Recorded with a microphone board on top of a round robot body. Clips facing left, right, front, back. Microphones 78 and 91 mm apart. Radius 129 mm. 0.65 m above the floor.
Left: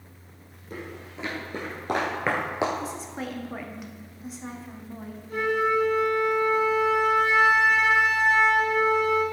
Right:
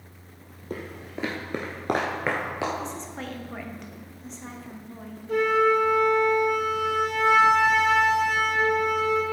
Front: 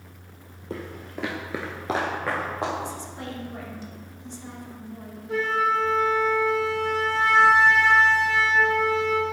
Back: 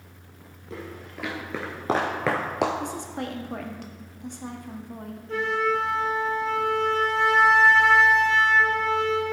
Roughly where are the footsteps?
Ahead right.